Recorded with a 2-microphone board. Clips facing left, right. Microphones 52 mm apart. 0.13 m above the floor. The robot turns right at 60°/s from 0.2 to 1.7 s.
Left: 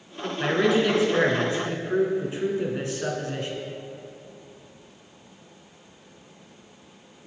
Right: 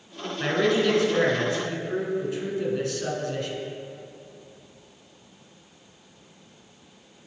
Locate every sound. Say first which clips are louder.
0.4 s a man speaking: left 1 dB; centre (ahead or behind), 1.3 m; by 3.5 s 25° left (ahead or behind), 1.3 m